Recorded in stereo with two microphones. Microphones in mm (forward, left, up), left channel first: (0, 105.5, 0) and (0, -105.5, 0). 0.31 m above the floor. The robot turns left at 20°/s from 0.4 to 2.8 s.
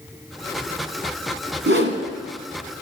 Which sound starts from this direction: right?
A whoosh, at 1.7 s.